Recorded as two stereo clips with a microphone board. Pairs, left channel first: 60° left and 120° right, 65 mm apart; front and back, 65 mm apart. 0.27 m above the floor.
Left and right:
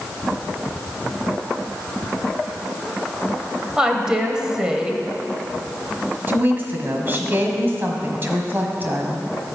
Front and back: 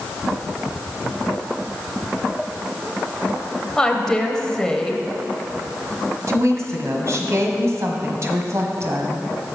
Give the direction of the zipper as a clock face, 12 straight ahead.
No zipper in this recording.